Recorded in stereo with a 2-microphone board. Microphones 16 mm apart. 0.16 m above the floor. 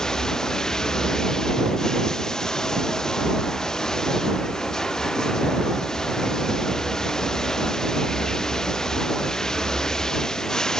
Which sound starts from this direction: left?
Running water, at 0.0 s.